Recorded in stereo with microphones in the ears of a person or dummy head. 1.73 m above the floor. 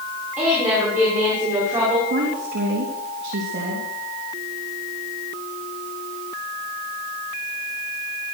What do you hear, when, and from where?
0.4 s a woman speaking: 10° right (ahead or behind), 6.5 m; by 2.0 s 20° right (ahead or behind), 6 m
2.1 s a woman speaking: 60° right (ahead or behind), 3 m